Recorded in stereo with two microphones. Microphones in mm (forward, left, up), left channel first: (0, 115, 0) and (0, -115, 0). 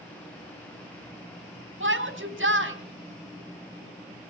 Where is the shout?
60° right (ahead or behind), 2.5 m.